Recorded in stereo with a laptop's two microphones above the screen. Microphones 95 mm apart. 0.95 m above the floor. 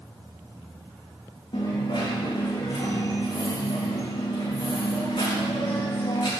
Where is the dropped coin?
75° left (ahead or behind), 3.5 m.